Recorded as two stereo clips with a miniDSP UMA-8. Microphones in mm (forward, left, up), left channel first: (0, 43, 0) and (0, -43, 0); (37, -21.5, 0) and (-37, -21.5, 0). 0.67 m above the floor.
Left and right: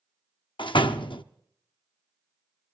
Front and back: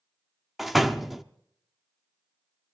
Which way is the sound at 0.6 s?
90° left.